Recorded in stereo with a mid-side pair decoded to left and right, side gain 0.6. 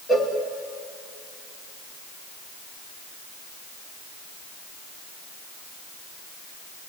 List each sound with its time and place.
0.1 s a cowbell: 20° left, 4.5 m